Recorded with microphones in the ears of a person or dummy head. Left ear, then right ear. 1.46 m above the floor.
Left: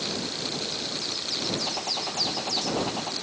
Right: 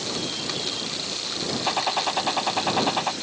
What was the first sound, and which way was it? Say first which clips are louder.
A gunshot: right 5 dB; 55° right (ahead or behind).